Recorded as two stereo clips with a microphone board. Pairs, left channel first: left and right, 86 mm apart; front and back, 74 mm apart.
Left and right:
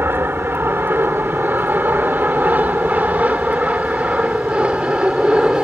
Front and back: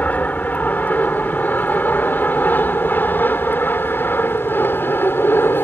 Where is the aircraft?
50° right; by 5.7 s 20° right.